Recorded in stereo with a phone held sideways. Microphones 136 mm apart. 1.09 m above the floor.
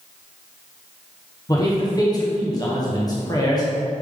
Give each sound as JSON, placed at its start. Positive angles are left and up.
{"t": 1.5, "sound": "a man speaking", "side_deg": 30, "distance_m": 1.0}